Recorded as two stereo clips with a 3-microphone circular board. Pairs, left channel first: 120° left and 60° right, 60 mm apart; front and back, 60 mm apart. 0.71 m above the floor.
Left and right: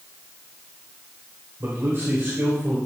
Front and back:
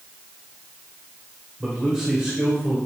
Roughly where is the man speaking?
Right.